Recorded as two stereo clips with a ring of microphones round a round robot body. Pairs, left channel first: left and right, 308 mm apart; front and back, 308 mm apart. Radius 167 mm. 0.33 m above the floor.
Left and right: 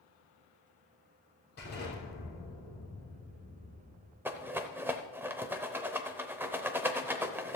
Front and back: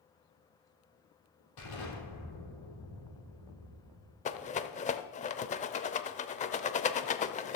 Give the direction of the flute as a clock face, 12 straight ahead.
I don't hear a flute.